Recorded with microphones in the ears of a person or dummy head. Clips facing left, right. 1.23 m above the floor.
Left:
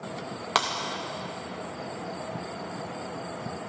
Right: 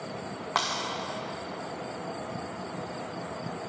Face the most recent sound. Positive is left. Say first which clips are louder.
# left 3 dB
turn(degrees=20)  # may be behind; listen again after turning